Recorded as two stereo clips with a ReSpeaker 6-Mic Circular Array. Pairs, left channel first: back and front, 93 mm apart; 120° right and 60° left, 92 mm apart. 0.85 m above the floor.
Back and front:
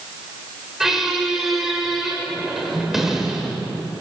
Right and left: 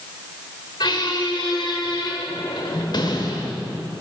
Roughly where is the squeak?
Right.